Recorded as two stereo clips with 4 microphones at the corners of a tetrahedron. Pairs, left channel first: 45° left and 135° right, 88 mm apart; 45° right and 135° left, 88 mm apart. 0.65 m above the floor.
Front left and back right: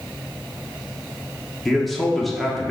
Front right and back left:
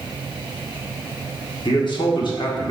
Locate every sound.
1.6 s a man speaking: 45° right, 1.2 m